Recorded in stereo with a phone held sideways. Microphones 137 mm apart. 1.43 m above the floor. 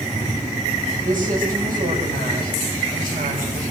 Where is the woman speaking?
80° right, 7.5 m.